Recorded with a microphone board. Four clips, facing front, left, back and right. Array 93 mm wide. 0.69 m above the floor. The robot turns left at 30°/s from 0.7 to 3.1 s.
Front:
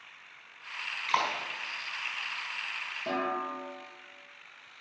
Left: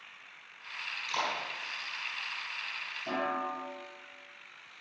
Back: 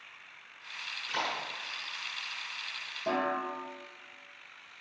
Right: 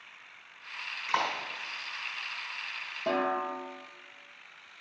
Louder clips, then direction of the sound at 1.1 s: Right 4 dB, front 6 dB; 30° right.